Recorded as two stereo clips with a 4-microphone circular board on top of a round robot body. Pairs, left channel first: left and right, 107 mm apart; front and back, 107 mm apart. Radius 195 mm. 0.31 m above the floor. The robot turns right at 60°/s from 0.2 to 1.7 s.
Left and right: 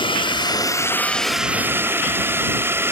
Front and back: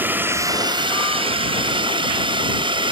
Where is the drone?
110° left; by 2.9 s 155° right.